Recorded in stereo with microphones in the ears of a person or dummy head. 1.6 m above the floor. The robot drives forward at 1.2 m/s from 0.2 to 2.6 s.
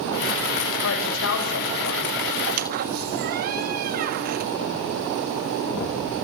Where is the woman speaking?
75° left (ahead or behind), 6.5 m; by 2.2 s 65° left (ahead or behind), 7 m.